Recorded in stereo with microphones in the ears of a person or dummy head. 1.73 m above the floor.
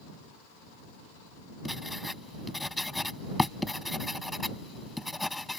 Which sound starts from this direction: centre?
Writing, at 1.6 s.